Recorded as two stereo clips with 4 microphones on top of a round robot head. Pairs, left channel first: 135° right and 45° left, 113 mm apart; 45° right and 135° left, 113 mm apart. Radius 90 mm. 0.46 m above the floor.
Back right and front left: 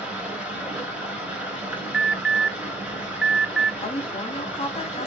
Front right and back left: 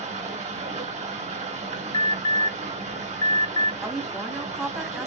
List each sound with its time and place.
0.0 s running water: 125° left, 3 m
1.9 s an alarm: 35° right, 0.6 m
3.8 s a woman speaking: 145° right, 1.2 m